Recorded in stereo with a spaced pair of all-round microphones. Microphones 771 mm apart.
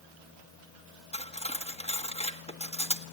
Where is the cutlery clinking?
10° left (ahead or behind), 1.5 m.